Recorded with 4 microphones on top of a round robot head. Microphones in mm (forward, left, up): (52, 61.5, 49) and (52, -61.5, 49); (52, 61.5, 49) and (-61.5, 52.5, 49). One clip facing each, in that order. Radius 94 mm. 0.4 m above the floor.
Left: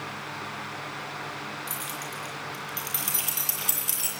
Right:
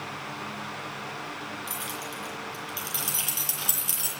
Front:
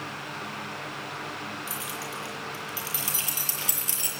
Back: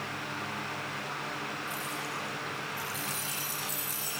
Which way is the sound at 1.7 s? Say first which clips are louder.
Even, front 1 dB; 10° right.